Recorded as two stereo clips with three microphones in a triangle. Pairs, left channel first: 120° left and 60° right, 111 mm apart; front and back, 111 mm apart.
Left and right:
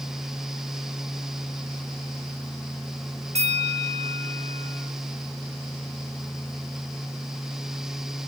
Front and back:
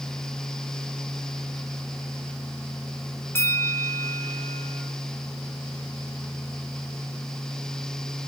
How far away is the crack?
I don't hear a crack.